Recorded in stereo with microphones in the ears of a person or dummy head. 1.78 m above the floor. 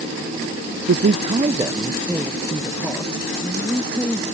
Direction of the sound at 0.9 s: 50° right (ahead or behind).